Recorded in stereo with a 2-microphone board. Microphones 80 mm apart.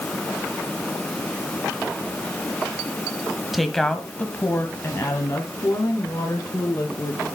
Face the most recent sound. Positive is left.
turn(degrees=50)  # may be behind; listen again after turning